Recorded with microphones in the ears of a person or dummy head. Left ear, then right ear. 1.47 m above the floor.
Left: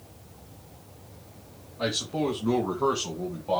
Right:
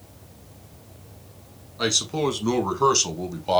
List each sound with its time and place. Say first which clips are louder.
1.8 s a man speaking: right 5 dB; 75° right (ahead or behind), 2 m; by 3.6 s 80° right, 1.1 m